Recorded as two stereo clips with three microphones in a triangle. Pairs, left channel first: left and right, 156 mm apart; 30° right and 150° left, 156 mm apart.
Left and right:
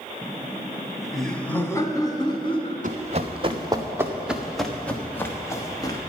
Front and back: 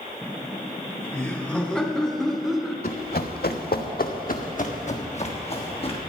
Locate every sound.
0.2 s laughter: 80° right, 1.1 m; by 2.7 s 60° left, 1.3 m
2.8 s running footsteps: 55° right, 1.5 m; by 6.0 s 25° left, 2.5 m